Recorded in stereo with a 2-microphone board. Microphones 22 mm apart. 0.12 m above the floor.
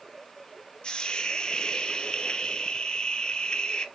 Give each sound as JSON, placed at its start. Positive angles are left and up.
{"t": 0.8, "sound": "a hiss", "side_deg": 50, "distance_m": 0.7}